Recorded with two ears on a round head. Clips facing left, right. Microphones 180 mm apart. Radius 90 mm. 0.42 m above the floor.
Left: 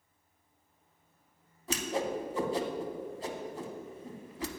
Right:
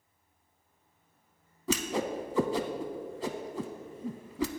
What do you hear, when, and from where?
1.7 s a whoosh: 60° right (ahead or behind), 0.6 m